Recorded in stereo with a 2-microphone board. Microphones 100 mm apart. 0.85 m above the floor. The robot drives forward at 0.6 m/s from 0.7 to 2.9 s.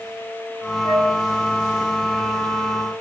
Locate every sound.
0.8 s a flute: 45° left (ahead or behind), 1.1 m; by 1.1 s 50° left (ahead or behind), 1.1 m